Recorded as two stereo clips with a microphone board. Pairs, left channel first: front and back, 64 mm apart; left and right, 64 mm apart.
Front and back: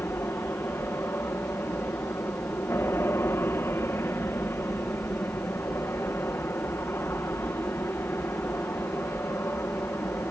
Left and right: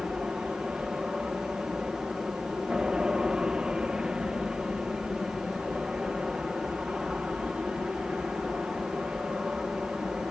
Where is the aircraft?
20° right.